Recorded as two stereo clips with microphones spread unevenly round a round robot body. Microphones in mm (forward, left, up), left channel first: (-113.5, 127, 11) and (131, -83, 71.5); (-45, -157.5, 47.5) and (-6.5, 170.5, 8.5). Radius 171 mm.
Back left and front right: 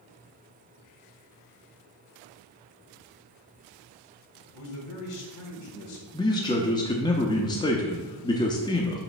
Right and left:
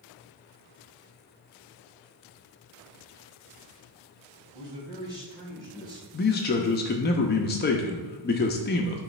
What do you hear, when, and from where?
4.5 s a man speaking: 160° left, 2.5 m
6.1 s a man speaking: 160° right, 0.6 m